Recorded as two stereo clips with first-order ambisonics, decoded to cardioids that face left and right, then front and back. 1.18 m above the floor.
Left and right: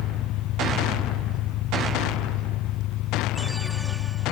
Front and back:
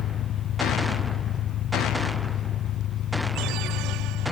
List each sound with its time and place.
0.0 s an engine running: 50° left